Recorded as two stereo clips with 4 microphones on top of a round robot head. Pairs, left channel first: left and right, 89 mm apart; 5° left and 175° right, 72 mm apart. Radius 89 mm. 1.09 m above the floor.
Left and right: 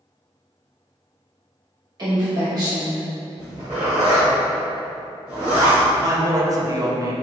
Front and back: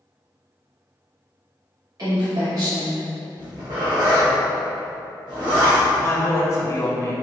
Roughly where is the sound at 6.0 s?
Ahead right.